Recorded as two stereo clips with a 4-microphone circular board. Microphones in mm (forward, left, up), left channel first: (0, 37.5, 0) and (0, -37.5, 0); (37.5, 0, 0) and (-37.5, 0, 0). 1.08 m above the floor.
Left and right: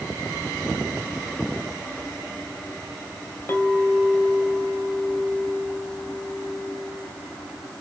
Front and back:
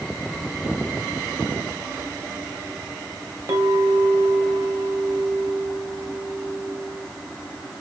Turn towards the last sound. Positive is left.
turn(degrees=145)